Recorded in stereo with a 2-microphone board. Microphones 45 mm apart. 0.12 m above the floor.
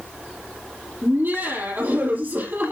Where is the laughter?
50° right (ahead or behind), 4 m.